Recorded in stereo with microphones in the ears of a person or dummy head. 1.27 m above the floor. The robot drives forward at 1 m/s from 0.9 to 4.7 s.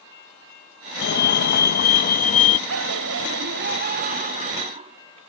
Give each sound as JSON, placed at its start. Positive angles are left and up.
{"t": 1.0, "sound": "a fire alarm", "side_deg": 60}
{"t": 2.7, "sound": "laughter", "side_deg": -90}